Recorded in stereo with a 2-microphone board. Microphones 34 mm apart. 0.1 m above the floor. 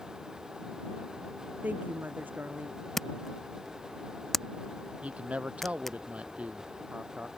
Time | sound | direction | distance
1.6 | a woman speaking | 60° right (ahead or behind) | ?
3.0 | a camera shutter | 5° left (ahead or behind) | ?
5.0 | a man speaking | 40° right (ahead or behind) | ?